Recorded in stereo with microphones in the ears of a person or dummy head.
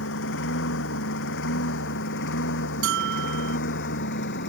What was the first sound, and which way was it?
A lawn mower, 65° left (ahead or behind).